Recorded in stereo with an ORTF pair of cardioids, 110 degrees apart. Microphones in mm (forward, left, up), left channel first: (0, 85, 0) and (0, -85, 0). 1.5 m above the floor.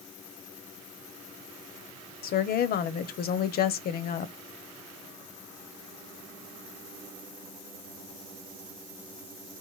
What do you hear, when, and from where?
2.2 s a woman speaking: 60° left, 0.8 m